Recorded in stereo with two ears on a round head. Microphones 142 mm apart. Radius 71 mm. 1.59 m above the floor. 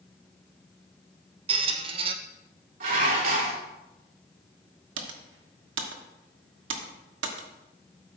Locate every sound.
1.5 s a squeak: 35° right (ahead or behind), 0.8 m
2.8 s dishes clattering: 55° right (ahead or behind), 3 m
5.0 s typing on a keyboard: 85° right, 1.2 m